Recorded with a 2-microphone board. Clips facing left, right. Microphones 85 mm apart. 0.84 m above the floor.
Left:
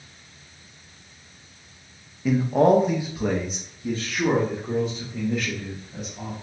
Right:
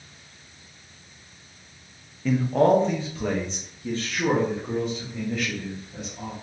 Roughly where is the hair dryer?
I don't hear a hair dryer.